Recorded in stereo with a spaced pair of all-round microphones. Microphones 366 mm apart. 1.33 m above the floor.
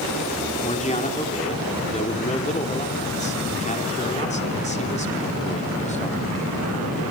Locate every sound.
0.6 s a man speaking: 20° left (ahead or behind), 3 m